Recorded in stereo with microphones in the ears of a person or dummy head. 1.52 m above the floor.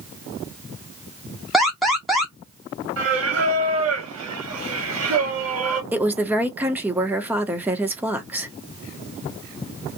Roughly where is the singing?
Right.